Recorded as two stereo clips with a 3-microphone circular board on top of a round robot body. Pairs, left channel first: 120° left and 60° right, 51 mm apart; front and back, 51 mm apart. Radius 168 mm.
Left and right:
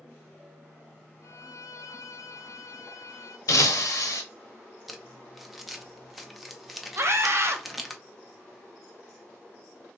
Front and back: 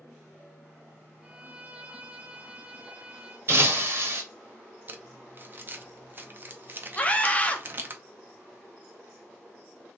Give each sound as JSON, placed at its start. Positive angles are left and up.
{"t": 1.2, "sound": "a violin", "azimuth_deg": 110, "distance_m": 0.7}
{"t": 3.5, "sound": "breaking glass", "azimuth_deg": 135, "distance_m": 0.7}
{"t": 4.9, "sound": "crumpling", "azimuth_deg": -150, "distance_m": 0.7}
{"t": 7.0, "sound": "a scream", "azimuth_deg": -55, "distance_m": 0.9}